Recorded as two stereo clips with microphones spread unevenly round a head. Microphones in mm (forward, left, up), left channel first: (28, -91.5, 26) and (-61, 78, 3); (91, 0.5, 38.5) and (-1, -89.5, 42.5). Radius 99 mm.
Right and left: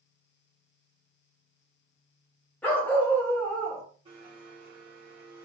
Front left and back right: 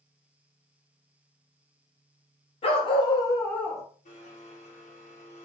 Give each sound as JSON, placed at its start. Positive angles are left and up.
{"t": 2.6, "sound": "a dog barking", "azimuth_deg": 10, "distance_m": 0.9}
{"t": 4.0, "sound": "a blender", "azimuth_deg": 55, "distance_m": 1.5}